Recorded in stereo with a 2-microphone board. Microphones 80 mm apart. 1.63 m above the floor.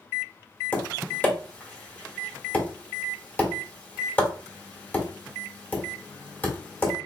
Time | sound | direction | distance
0.7 | tapping | 25° left (ahead or behind) | 1.4 m